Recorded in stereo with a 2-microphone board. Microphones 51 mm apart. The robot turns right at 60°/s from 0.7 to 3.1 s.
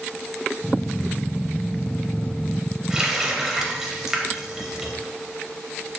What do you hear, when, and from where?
2.9 s a running tap: 15° right (ahead or behind), 0.6 m; by 4.9 s 10° right (ahead or behind), 0.6 m